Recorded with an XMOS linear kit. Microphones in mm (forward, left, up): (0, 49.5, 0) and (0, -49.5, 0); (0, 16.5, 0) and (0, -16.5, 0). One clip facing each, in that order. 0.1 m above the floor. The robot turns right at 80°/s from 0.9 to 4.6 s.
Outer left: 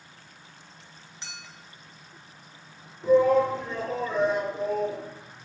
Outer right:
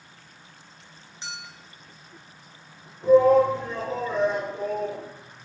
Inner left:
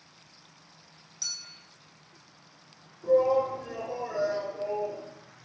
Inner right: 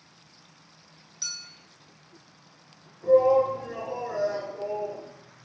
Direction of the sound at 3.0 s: 80° right.